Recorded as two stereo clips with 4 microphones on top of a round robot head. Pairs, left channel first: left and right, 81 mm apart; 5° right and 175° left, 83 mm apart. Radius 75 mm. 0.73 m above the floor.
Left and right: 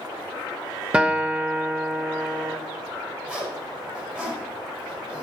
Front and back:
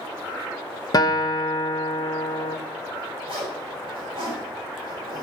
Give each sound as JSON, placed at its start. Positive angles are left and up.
{"t": 0.9, "sound": "a guitar", "azimuth_deg": -20, "distance_m": 1.0}
{"t": 3.3, "sound": "a zipper", "azimuth_deg": -160, "distance_m": 5.5}